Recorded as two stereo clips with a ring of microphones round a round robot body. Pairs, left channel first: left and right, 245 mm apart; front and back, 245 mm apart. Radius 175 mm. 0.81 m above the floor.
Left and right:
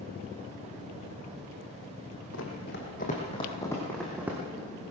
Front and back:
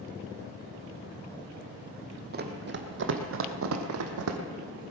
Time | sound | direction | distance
2.3 | running footsteps | 135° left | 1.6 m